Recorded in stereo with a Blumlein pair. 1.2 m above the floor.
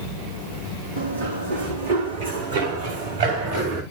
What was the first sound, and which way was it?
Running footsteps, 65° right.